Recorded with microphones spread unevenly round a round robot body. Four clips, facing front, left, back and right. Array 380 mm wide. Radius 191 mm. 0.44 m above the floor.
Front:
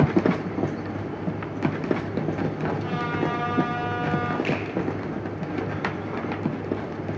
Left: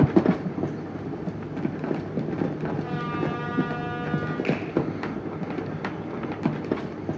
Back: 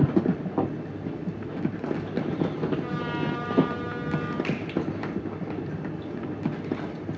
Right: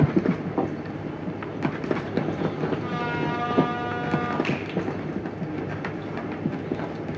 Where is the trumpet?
110° right, 4.5 m.